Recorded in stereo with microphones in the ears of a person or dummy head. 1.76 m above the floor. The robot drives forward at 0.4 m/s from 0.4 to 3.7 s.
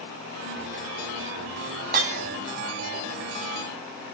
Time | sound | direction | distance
1.9 | breaking glass | 45° right (ahead or behind) | 1.8 m